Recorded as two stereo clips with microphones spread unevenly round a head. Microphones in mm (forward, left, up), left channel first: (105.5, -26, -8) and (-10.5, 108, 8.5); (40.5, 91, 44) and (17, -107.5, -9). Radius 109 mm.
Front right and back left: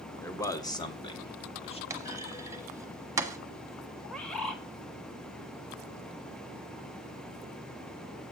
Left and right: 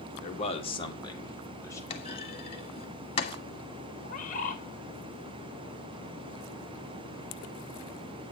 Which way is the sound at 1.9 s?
75° left.